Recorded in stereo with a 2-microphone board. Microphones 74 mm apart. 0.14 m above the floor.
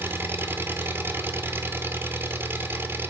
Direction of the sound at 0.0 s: 30° right (ahead or behind).